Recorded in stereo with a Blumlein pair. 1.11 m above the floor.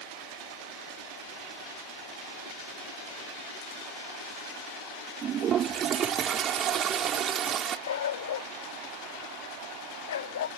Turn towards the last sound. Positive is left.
turn(degrees=60)